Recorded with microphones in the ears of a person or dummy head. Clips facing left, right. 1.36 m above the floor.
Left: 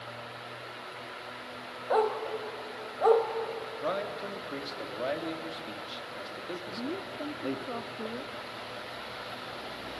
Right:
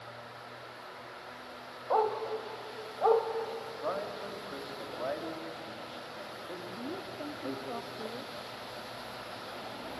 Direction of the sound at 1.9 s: 25° left (ahead or behind).